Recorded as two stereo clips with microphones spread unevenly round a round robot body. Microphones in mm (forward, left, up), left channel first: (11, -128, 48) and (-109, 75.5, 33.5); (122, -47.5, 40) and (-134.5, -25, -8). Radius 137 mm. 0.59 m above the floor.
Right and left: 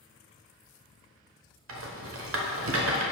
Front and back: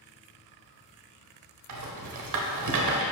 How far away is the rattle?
About 1.0 m.